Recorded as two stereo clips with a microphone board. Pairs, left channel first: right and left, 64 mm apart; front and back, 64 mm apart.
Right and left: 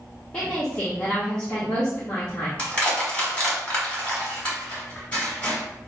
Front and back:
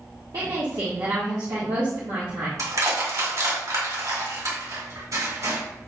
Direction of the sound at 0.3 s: 165° right.